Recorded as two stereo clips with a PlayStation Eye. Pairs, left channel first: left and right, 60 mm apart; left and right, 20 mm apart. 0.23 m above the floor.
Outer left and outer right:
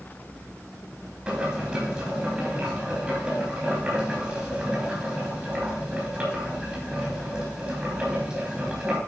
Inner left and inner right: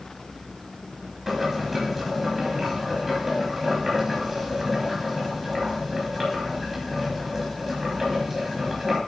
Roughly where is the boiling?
Centre.